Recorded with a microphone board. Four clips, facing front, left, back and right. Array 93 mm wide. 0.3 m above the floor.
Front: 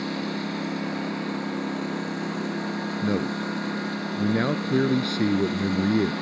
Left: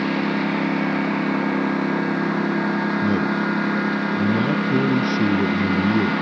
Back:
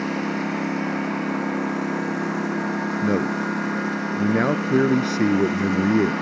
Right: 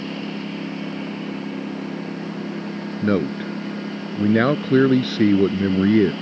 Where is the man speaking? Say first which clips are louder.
Left 1 dB, back 4 dB; 110° right.